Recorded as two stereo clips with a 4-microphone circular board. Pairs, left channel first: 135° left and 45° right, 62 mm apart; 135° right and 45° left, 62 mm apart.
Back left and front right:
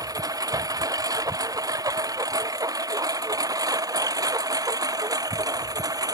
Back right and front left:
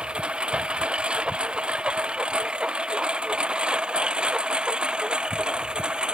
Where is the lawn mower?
30° right.